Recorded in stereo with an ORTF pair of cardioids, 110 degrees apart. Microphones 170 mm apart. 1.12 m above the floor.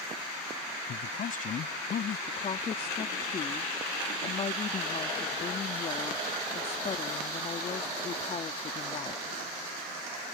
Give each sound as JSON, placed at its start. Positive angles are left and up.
{"t": 0.9, "sound": "a man speaking", "azimuth_deg": 55}
{"t": 2.3, "sound": "a woman speaking", "azimuth_deg": 40}